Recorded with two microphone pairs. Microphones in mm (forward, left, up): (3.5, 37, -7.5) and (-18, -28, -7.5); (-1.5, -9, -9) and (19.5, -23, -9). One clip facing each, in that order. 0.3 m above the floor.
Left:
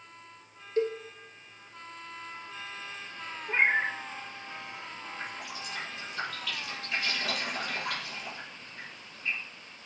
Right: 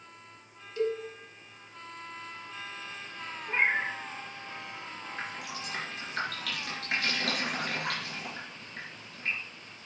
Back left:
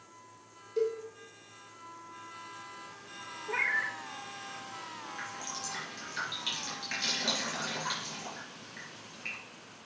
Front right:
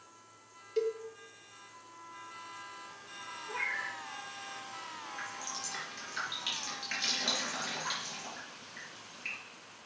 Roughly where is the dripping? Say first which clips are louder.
Right 2 dB, back left 1 dB; behind right.